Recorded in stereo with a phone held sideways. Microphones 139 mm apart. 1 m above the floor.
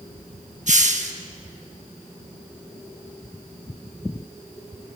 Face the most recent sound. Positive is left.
turn(degrees=-60)  # may be behind; listen again after turning